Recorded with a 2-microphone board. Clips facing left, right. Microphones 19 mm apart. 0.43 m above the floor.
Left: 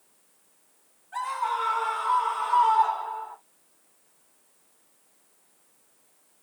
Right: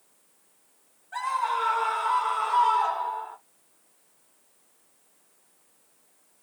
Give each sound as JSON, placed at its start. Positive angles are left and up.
{"t": 1.1, "sound": "a scream", "side_deg": -25, "distance_m": 2.5}